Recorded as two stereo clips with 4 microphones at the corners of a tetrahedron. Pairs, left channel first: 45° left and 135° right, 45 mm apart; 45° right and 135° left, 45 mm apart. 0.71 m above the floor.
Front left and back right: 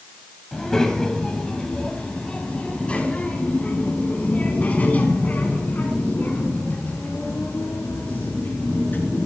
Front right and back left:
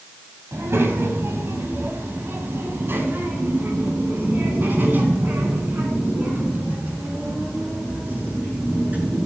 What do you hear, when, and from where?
0.5 s a child speaking: 125° left, 3 m; by 9.3 s 85° left, 6 m